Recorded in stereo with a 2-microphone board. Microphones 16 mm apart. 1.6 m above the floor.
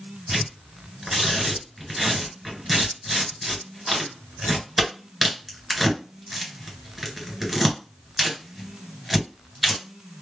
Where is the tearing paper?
10° right (ahead or behind), 2 m.